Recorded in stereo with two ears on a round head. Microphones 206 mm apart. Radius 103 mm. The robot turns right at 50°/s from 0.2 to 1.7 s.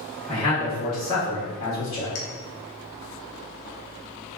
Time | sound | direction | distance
0.3 | a man speaking | 5° left | 1.5 m
2.1 | a clink | 65° left (ahead or behind) | 0.5 m